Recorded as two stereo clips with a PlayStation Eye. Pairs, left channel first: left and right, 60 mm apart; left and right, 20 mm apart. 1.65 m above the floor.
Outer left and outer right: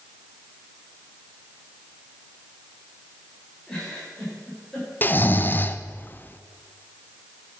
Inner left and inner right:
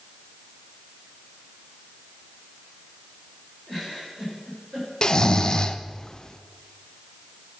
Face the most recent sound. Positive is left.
turn(degrees=35)  # may be behind; listen again after turning